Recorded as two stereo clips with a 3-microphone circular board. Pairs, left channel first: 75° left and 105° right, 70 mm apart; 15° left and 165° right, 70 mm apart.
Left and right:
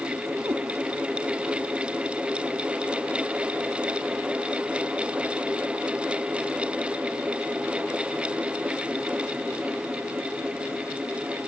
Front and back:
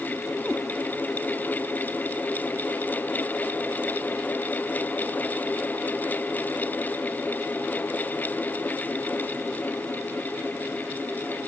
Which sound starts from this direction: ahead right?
A cat meowing, at 0.5 s.